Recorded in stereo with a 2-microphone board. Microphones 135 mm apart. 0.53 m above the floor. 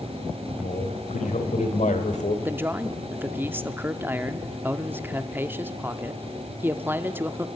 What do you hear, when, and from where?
0.6 s a man speaking: 70° left (ahead or behind), 3 m; by 2.4 s 60° left (ahead or behind), 2 m
2.5 s a man speaking: 15° right (ahead or behind), 0.8 m